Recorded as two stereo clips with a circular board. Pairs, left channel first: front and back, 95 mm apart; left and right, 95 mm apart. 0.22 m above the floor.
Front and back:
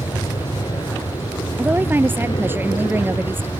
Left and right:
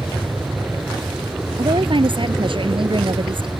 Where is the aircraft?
20° right.